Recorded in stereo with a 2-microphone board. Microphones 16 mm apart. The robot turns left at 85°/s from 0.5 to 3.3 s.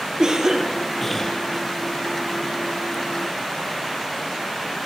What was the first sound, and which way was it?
A cough, 140° right.